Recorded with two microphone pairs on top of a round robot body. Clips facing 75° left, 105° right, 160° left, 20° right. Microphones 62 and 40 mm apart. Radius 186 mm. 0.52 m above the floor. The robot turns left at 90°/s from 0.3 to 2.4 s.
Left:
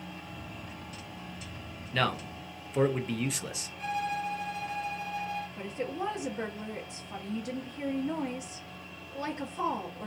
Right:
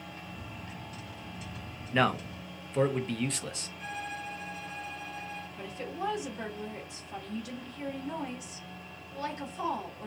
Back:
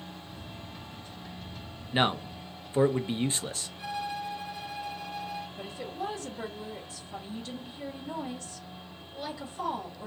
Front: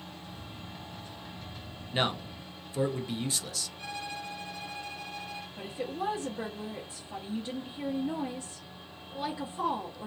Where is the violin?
80° left, 0.8 m.